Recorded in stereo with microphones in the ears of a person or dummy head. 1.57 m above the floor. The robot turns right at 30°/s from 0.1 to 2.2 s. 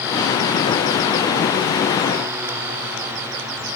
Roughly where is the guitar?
No guitar in this recording.